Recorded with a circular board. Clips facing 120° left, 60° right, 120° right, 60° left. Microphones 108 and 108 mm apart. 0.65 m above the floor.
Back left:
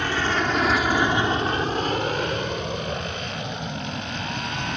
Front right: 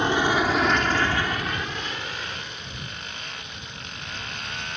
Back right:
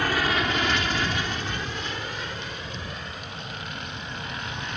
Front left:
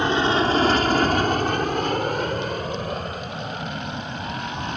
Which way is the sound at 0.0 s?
Straight ahead.